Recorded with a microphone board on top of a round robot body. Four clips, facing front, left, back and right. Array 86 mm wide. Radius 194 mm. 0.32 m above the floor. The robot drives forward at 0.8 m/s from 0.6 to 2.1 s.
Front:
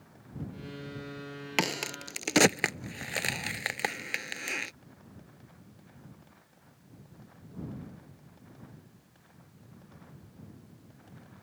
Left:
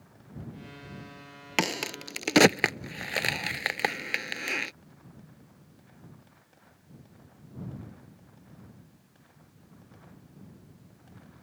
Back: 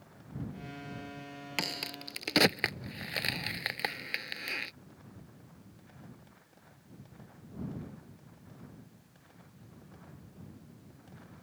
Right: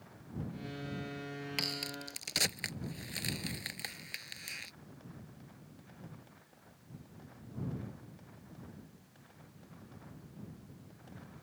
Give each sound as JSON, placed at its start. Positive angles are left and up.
{"t": 1.6, "sound": "a crack", "azimuth_deg": 60}